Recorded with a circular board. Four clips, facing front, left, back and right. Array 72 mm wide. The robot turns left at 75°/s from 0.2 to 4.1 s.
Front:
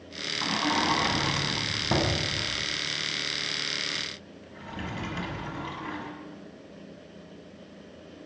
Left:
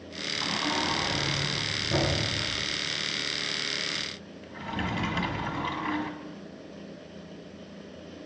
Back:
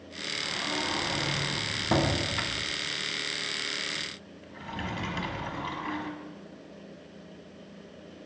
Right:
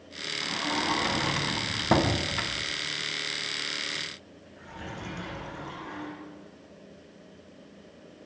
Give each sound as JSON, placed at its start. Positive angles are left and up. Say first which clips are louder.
{"t": 0.4, "sound": "a sliding door", "louder": "even, front 7 dB", "azimuth_deg": 20, "distance_m": 0.9}